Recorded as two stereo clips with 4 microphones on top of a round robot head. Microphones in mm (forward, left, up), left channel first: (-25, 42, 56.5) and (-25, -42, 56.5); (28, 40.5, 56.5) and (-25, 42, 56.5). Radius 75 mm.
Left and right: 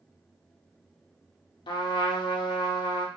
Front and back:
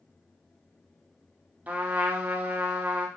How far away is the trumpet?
About 0.7 m.